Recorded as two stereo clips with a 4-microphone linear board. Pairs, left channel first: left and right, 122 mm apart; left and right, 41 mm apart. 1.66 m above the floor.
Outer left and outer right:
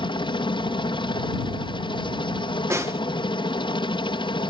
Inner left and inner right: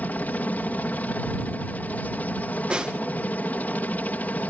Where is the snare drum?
25° right (ahead or behind).